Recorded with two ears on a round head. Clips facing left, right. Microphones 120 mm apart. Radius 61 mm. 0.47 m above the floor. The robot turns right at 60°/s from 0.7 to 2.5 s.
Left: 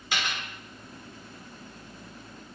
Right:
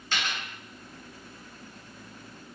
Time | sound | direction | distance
0.1 | a dropped coin | 10° left (ahead or behind) | 0.8 m